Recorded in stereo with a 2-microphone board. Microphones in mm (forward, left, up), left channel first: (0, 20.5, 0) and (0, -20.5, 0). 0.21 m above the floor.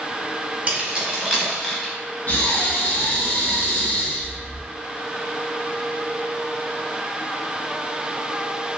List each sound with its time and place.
0.7 s keys jangling: 30° right (ahead or behind), 1.1 m; by 1.9 s 10° left (ahead or behind), 0.9 m
2.3 s breathing: 50° left (ahead or behind), 1.0 m